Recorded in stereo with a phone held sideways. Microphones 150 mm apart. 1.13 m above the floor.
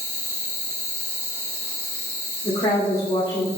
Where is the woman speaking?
55° left (ahead or behind), 1.5 m.